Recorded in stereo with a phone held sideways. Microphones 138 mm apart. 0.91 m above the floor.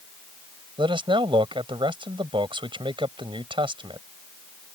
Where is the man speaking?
40° right (ahead or behind).